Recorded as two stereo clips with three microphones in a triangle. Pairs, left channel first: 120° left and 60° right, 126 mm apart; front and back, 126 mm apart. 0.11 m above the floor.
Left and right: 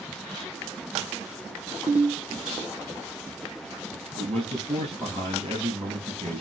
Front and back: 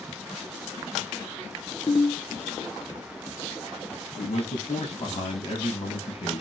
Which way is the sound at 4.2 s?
30° right.